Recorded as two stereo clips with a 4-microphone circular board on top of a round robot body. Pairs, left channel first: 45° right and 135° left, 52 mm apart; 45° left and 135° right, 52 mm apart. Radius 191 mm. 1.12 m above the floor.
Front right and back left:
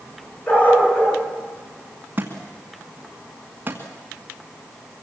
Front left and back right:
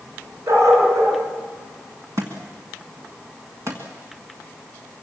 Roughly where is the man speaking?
I don't hear a man speaking.